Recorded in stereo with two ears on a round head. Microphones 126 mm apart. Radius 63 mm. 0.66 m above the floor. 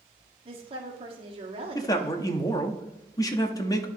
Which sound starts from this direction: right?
A woman speaking, at 0.5 s.